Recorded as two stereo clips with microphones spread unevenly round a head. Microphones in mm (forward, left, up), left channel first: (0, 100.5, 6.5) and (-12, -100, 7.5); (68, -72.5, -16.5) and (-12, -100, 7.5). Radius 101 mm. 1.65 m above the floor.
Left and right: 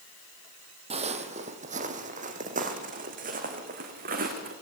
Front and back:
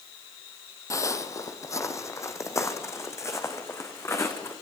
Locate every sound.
0.9 s footsteps: 40° right, 2.5 m; by 4.5 s 45° right, 6 m